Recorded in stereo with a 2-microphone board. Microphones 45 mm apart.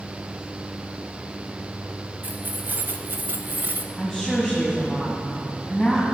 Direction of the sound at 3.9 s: 5° left (ahead or behind).